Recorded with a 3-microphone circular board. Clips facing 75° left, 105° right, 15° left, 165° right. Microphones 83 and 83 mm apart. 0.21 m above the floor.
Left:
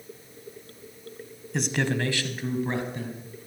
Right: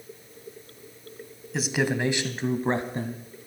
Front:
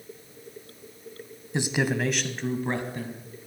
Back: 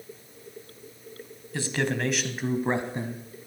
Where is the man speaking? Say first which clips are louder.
Right 1 dB, front 2 dB; 20° right, 1.2 m; by 3.5 s 125° right, 1.7 m.